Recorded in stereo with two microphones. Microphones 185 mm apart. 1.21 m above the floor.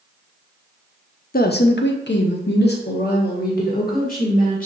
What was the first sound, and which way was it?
A woman speaking, 55° left (ahead or behind).